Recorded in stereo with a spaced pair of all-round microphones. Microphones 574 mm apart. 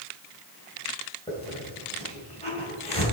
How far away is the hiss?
About 3 m.